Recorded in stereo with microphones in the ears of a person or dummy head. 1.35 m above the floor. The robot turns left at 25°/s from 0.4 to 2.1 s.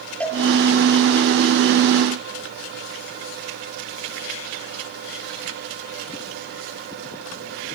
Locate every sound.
0.2 s a cowbell: 10° left (ahead or behind), 4.5 m